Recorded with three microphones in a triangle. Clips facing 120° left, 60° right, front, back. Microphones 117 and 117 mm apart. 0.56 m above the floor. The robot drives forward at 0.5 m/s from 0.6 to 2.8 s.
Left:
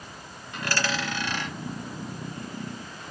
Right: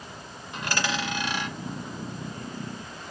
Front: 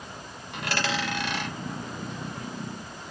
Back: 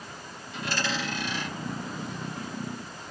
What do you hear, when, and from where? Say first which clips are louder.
0.5 s a dropped coin: even, front 2 dB; 10° left, 1.7 m; by 1.5 s 15° left, 1.2 m